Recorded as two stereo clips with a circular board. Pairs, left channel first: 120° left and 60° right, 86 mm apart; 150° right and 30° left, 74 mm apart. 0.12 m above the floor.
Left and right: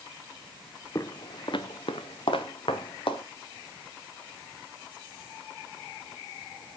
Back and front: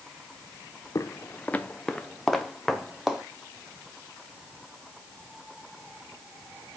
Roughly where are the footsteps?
Behind.